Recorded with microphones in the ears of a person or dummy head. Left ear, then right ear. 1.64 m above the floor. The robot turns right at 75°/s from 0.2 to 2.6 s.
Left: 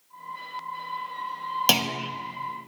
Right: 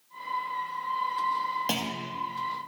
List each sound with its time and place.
1.7 s a clunk: 35° left, 1.0 m; by 2.1 s 70° left, 1.0 m